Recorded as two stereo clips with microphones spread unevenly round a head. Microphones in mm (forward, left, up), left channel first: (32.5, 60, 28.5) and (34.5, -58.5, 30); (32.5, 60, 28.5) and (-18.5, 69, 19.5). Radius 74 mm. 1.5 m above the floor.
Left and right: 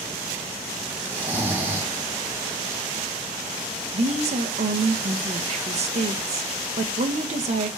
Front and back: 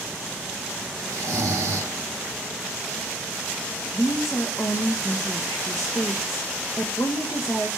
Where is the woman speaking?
65° right, 1.3 m.